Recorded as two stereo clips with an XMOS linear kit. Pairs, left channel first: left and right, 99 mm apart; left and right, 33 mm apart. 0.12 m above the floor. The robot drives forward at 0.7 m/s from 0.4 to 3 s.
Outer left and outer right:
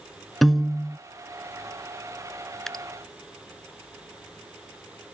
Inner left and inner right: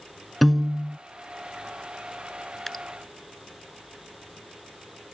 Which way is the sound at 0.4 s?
Centre (ahead or behind).